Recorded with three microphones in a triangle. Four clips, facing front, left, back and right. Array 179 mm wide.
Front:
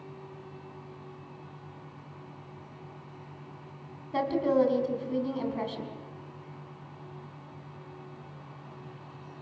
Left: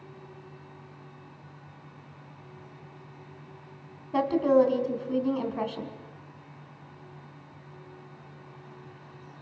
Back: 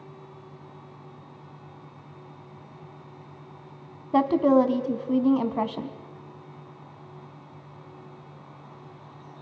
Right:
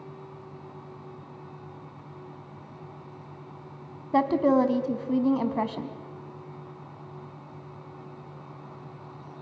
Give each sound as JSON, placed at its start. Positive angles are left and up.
{"t": 4.1, "sound": "a woman speaking", "azimuth_deg": -145, "distance_m": 1.9}